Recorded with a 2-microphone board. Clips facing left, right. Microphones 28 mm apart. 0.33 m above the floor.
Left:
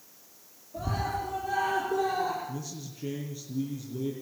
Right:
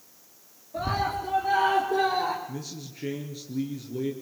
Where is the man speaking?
80° right, 4.5 m.